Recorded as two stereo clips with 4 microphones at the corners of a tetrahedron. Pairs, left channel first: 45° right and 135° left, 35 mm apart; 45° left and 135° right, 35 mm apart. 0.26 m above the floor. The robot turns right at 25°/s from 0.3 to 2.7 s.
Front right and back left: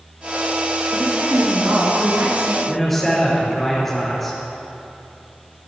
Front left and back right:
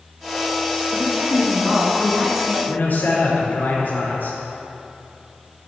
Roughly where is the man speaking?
Ahead left.